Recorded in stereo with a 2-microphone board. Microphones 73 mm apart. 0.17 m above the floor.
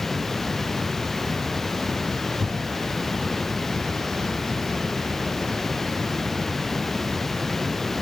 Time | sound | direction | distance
0.0 | running water | 5° left (ahead or behind) | ?
2.4 | a thud | 75° right (ahead or behind) | ?